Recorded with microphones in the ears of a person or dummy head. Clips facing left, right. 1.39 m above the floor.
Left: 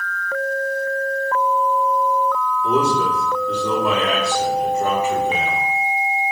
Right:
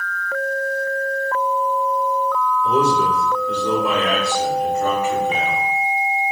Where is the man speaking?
35° left (ahead or behind), 3.5 m; by 5.6 s centre (ahead or behind), 4.5 m.